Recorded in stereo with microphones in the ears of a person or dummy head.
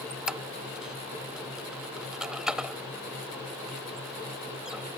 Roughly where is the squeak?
Centre.